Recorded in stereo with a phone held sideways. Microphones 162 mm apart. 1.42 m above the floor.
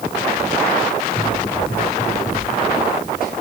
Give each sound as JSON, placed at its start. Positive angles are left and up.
{"t": 1.1, "sound": "running footsteps", "side_deg": 70, "distance_m": 8.5}